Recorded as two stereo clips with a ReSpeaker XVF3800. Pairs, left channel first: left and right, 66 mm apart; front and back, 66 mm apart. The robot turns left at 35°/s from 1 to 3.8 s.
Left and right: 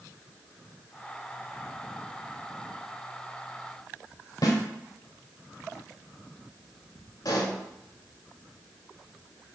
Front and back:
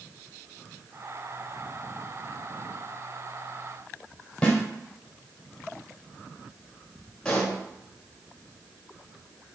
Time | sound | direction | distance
4.4 | a snare drum | 75° left | 1.4 m
7.2 | a pop | 75° left | 1.2 m